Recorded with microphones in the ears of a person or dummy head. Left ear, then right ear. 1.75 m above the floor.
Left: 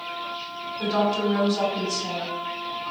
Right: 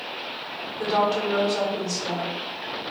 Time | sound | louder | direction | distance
0.8 | a woman speaking | right 1 dB | 25° right (ahead or behind) | 2 m